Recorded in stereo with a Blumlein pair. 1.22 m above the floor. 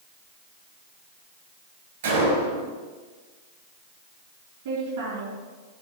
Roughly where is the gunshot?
Ahead right.